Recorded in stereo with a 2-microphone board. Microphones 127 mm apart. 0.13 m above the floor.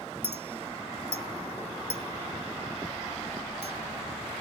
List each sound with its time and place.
0.2 s a clink: 20° right (ahead or behind), 0.6 m